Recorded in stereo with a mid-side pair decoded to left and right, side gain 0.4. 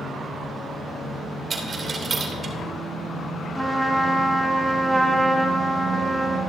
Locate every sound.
1.5 s a dropped coin: 45° right, 3 m
3.5 s a trumpet: 10° right, 2.5 m